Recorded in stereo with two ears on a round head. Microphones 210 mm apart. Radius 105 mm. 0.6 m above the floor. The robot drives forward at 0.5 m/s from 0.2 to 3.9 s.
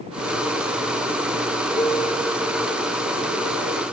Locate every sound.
1.8 s a piano: 10° right (ahead or behind), 6.5 m